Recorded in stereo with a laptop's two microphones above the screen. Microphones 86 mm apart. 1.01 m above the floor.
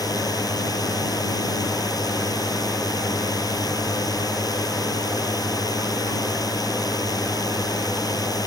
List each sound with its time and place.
0.0 s a drone: 45° left (ahead or behind)